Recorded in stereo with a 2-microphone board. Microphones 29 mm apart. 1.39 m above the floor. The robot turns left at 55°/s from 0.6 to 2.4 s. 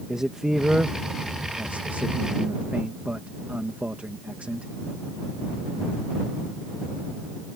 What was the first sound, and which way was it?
A man speaking, 20° right (ahead or behind).